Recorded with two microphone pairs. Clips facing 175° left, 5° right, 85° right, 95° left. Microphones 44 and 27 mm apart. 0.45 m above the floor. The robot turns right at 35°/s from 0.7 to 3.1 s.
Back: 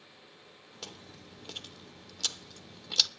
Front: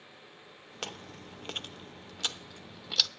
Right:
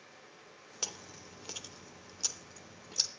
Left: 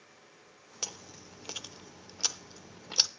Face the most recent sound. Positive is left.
turn(degrees=85)